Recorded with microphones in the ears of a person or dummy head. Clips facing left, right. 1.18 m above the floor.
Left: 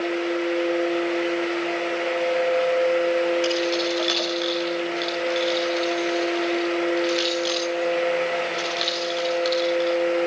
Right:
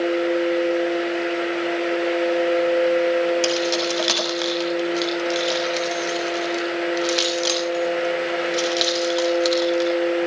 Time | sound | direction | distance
3.4 | keys jangling | 65° right (ahead or behind) | 6.5 m